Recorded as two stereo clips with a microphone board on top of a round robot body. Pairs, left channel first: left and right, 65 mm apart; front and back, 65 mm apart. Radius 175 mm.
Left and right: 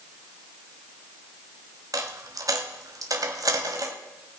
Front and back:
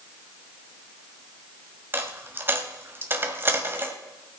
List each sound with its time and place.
1.9 s a dropped coin: 125° right, 1.3 m